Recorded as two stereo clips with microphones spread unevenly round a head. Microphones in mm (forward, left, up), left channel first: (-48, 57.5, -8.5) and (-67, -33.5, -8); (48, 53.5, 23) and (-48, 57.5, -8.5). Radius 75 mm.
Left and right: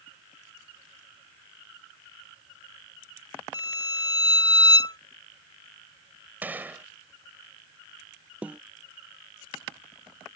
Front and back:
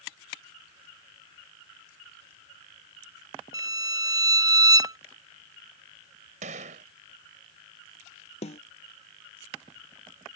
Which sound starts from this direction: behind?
A gunshot, at 6.4 s.